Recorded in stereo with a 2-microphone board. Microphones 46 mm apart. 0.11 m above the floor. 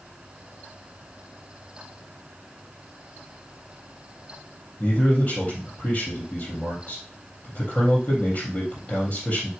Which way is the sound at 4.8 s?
30° left (ahead or behind).